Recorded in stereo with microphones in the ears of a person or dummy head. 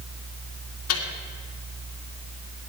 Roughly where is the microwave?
Left.